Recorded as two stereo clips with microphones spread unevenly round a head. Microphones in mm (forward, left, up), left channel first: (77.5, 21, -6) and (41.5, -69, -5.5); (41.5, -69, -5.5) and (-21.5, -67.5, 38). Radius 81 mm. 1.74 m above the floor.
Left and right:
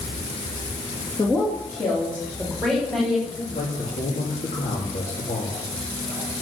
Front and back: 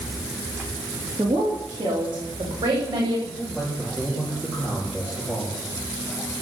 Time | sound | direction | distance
1.2 | a woman speaking | 135° left | 3 m
3.3 | a man speaking | 95° left | 3.5 m